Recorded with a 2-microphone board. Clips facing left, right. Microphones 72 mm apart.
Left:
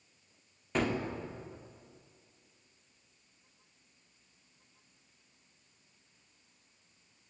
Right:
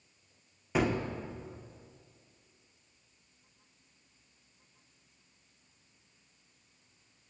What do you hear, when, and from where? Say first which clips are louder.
0.8 s a gunshot: right 2 dB; 5° right (ahead or behind), 0.6 m